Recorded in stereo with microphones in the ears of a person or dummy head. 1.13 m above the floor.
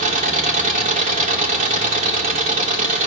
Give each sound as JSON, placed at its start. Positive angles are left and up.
{"t": 0.0, "sound": "an engine running", "side_deg": -40, "distance_m": 1.1}